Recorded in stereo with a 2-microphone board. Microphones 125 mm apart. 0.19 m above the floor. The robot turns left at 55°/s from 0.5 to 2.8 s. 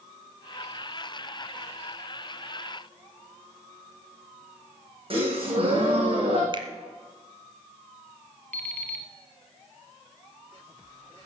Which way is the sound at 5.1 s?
45° right (ahead or behind).